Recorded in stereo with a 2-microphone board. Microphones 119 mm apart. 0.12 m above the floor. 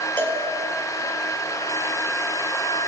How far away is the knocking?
I don't hear knocking.